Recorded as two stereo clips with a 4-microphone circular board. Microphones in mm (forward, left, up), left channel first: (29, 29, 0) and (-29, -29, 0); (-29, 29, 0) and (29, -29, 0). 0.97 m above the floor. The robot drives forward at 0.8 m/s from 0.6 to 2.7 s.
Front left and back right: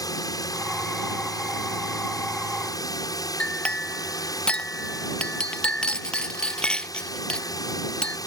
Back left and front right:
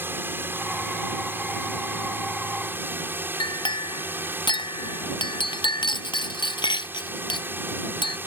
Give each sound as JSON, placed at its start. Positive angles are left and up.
{"t": 0.0, "sound": "a drone", "azimuth_deg": 15}
{"t": 3.4, "sound": "a clink", "azimuth_deg": 125}